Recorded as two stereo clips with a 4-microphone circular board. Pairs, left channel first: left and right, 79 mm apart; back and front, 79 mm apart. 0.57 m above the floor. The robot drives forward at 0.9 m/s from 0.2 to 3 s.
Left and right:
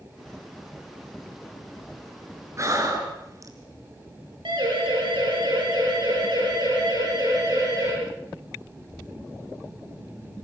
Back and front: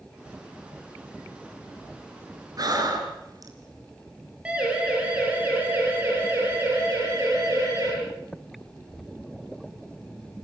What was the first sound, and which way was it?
Breathing, 40° right.